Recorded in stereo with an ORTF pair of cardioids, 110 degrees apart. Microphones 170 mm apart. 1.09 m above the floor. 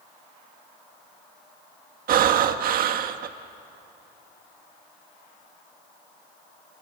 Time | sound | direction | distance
2.1 | breathing | 60° right | 1.5 m